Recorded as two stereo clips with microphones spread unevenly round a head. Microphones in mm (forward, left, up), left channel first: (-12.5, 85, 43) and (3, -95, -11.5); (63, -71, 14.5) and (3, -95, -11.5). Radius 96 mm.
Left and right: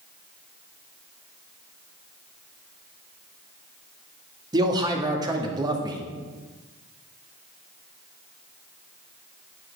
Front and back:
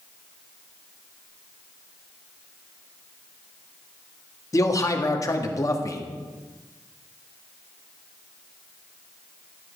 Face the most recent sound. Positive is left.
turn(degrees=-20)